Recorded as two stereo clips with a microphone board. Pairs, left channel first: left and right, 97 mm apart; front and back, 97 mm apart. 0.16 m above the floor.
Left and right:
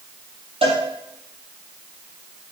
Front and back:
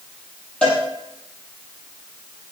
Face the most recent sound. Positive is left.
turn(degrees=-80)